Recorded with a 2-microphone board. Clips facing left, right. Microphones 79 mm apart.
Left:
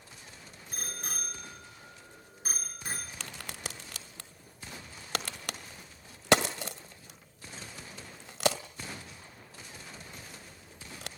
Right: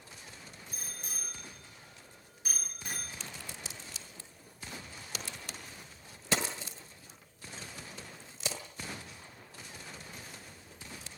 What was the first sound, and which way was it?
A bicycle bell, 65° left (ahead or behind).